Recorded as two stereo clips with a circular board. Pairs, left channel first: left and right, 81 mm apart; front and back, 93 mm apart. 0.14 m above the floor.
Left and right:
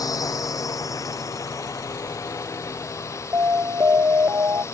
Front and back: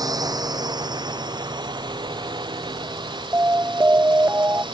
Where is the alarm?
125° right.